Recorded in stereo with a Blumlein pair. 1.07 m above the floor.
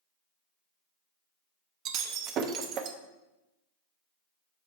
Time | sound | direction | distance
1.9 | breaking glass | 35° right | 0.7 m